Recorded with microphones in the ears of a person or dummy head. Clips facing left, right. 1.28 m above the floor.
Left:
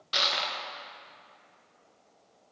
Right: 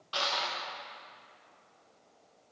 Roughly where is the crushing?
Left.